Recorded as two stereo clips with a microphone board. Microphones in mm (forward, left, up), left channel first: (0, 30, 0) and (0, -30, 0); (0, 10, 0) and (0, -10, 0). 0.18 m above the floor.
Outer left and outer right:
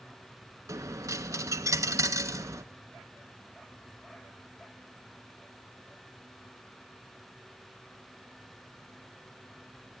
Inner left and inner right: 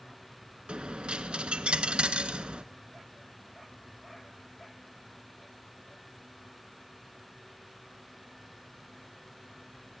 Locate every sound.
0.7 s a dropped coin: 65° right (ahead or behind), 0.5 m